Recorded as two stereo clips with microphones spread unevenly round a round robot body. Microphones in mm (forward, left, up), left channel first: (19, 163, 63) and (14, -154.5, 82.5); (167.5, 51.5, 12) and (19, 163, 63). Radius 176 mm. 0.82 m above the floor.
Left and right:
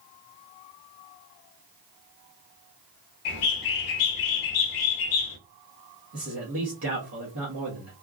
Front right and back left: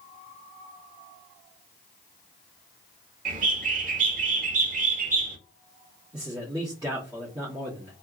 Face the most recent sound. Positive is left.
turn(degrees=-135)